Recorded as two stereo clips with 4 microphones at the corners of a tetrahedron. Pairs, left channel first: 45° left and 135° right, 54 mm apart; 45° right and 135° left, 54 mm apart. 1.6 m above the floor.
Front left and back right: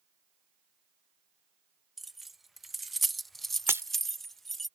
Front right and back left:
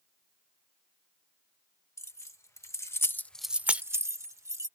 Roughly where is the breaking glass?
Behind.